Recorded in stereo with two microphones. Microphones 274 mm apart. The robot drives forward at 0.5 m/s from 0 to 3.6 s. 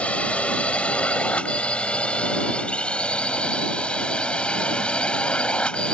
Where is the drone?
5° left (ahead or behind).